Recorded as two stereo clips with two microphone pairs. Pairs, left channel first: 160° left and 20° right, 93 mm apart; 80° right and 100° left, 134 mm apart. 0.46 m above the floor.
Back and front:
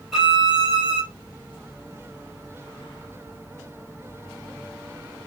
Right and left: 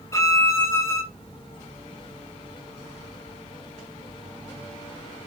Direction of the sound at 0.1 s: 110° right.